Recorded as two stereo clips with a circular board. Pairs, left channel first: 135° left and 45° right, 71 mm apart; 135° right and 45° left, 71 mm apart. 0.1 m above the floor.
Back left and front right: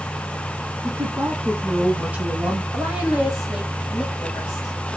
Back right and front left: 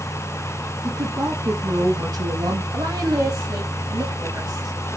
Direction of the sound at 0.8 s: 10° left.